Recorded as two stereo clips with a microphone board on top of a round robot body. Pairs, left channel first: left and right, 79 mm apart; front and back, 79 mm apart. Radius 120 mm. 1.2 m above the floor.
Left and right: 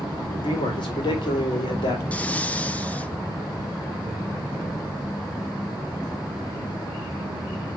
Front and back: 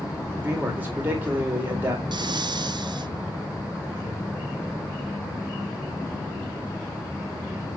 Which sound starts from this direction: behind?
Breathing, at 2.1 s.